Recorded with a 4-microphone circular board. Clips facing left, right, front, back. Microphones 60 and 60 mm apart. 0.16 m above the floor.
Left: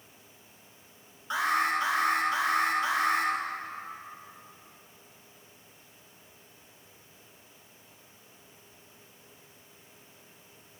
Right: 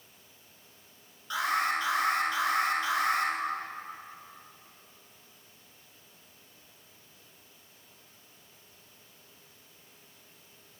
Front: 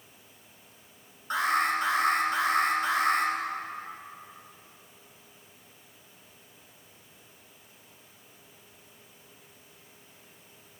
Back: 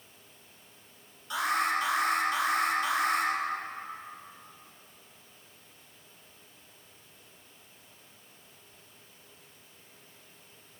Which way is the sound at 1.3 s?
25° left.